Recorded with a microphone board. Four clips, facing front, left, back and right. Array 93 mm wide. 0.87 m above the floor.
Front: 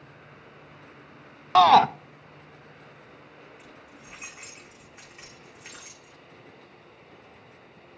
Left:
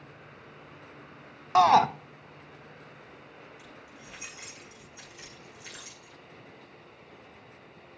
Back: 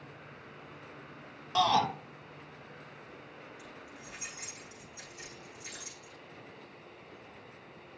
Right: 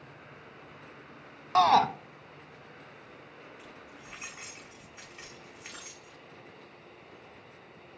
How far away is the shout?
About 0.7 m.